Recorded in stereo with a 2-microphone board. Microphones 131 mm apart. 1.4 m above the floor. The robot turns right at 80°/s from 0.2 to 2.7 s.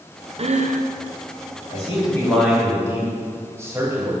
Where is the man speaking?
120° left, 3 m; by 4.1 s 160° right, 3 m.